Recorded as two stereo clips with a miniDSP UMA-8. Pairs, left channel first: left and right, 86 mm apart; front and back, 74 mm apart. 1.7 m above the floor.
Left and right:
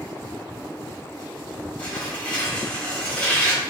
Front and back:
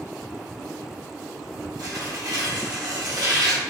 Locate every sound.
1.8 s tearing paper: 165° left, 3.5 m